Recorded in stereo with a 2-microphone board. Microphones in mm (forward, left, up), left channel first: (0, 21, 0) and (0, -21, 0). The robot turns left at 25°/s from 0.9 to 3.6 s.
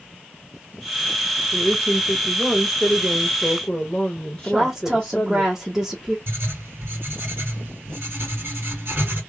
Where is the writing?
65° right (ahead or behind), 2 m.